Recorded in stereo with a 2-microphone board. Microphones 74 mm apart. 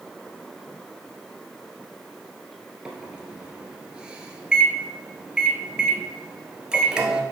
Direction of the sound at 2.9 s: 10° right (ahead or behind).